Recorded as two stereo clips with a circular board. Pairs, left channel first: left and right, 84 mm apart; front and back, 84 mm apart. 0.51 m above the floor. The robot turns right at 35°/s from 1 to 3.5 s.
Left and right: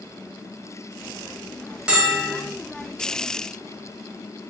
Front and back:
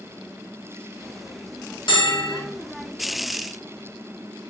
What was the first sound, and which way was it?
A bell, 15° right.